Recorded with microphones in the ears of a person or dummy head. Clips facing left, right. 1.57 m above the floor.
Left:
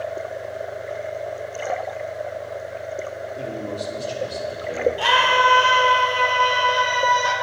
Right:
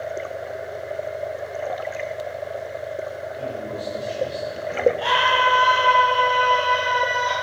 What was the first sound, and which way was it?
A man speaking, 60° left (ahead or behind).